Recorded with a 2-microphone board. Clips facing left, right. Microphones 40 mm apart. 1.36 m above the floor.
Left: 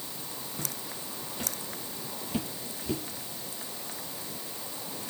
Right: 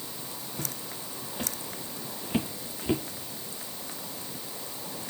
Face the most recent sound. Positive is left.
turn(degrees=-40)  # may be behind; listen again after turning